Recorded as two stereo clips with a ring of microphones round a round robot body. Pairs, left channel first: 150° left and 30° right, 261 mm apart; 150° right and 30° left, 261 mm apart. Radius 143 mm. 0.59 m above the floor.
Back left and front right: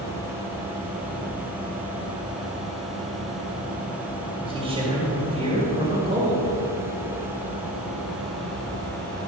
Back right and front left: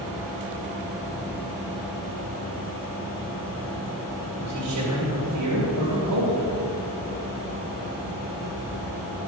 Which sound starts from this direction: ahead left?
A man speaking, at 4.4 s.